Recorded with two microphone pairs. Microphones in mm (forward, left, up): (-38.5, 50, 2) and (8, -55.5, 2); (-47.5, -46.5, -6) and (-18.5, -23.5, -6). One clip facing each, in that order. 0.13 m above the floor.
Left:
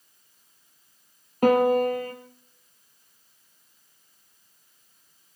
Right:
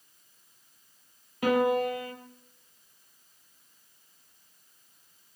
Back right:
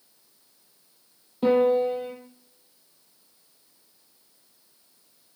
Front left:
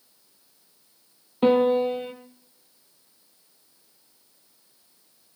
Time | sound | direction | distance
1.4 | a piano | 75° left | 3 m